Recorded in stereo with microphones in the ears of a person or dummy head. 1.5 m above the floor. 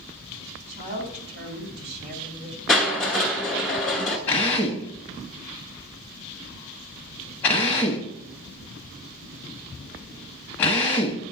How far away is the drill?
About 0.9 m.